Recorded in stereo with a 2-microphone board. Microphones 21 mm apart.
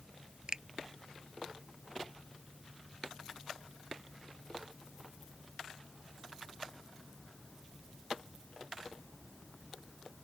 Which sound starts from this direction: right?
A finger snap, at 0.5 s.